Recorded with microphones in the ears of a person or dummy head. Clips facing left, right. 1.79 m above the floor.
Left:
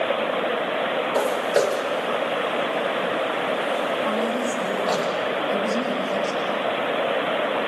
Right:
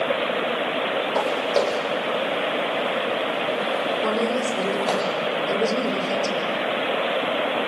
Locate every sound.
1.1 s footsteps: 15° left (ahead or behind), 4 m; by 5.0 s 40° right (ahead or behind), 4 m
4.0 s a woman speaking: 60° right (ahead or behind), 5.5 m